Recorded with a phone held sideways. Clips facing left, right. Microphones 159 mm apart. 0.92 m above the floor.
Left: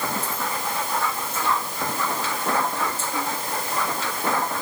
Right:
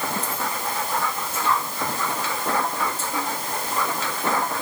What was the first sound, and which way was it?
Only background noise.